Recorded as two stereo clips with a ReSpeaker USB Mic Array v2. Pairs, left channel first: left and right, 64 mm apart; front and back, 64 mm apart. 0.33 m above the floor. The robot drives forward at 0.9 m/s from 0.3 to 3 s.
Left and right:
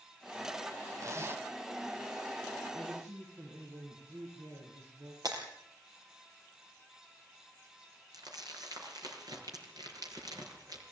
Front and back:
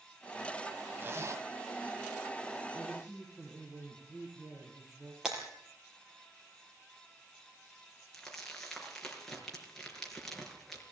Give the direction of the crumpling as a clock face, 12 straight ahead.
3 o'clock.